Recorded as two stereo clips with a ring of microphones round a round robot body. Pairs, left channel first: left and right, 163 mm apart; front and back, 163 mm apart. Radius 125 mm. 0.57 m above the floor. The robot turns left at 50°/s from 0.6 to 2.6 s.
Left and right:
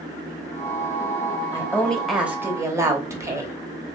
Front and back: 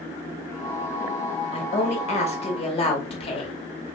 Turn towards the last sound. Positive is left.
turn(degrees=-30)